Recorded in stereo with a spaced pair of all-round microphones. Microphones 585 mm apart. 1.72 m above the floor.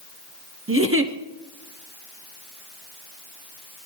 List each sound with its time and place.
0.7 s a giggle: 20° right (ahead or behind), 0.8 m